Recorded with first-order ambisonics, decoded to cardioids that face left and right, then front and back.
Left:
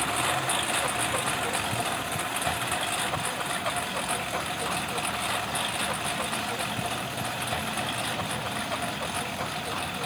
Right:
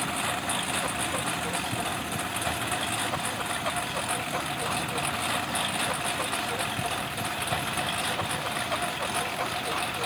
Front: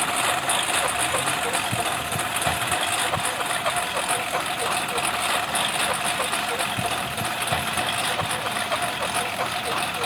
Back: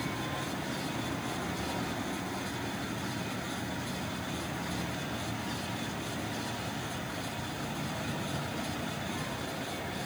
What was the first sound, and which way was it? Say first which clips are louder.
A lawn mower: left 3 dB, front 13 dB; 5° left.